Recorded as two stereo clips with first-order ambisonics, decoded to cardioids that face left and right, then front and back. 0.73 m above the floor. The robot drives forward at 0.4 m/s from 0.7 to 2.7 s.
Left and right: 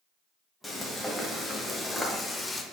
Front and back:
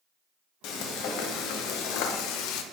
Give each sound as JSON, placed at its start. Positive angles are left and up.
{"t": 0.6, "sound": "frying", "azimuth_deg": 5, "distance_m": 1.3}